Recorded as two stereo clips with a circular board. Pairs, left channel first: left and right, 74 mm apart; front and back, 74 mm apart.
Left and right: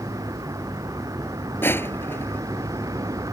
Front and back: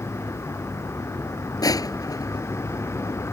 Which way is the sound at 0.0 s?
50° right.